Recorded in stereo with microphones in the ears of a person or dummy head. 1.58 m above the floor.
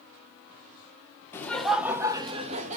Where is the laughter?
10° left (ahead or behind), 0.8 m; by 2.8 s 45° right (ahead or behind), 0.9 m.